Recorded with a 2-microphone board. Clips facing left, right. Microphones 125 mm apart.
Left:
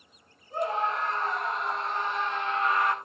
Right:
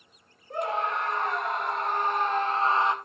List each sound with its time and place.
0.5 s a scream: 65° right (ahead or behind), 4 m; by 3.0 s 20° right (ahead or behind), 1.3 m